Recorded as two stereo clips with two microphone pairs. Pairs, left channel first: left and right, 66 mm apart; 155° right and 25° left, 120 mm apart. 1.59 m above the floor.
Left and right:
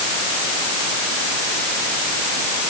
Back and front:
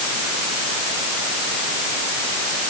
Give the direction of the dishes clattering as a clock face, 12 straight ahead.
I don't hear dishes clattering.